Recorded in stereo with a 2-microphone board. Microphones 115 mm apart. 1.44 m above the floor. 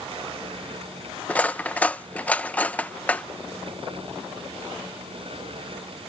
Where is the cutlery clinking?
15° left (ahead or behind).